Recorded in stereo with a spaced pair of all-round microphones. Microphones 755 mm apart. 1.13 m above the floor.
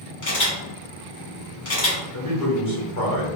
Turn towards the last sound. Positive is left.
turn(degrees=20)  # may be behind; listen again after turning